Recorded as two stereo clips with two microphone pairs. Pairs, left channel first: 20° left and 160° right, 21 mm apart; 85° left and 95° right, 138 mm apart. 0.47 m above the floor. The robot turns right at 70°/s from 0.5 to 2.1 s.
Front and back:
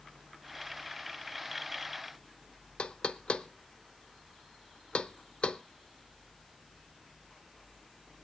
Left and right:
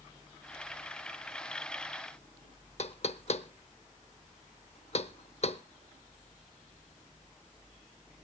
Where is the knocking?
45° left, 0.6 m.